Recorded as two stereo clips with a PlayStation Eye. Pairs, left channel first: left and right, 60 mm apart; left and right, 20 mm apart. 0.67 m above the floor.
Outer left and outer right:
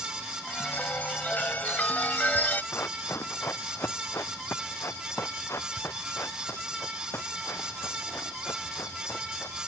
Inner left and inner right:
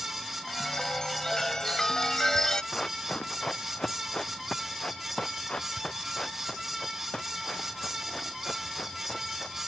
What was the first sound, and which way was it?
A chime, 30° left (ahead or behind).